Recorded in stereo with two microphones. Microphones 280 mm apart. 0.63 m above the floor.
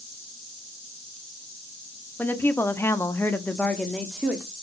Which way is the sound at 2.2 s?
5° left (ahead or behind).